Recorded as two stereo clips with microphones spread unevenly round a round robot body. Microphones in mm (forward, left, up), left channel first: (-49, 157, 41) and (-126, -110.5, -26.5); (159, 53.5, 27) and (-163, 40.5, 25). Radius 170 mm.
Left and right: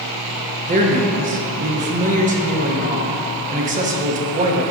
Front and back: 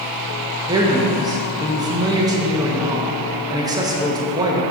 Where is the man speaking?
105° right, 0.9 m.